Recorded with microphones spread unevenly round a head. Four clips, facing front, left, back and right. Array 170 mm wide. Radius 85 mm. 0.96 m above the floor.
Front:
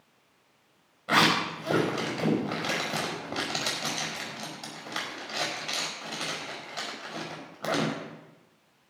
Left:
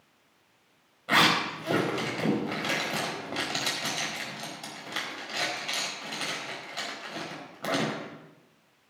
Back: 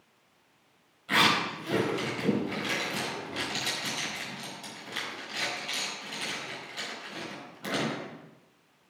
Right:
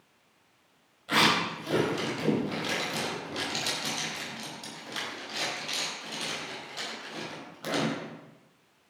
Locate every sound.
1.1 s a zipper: 30° left, 5 m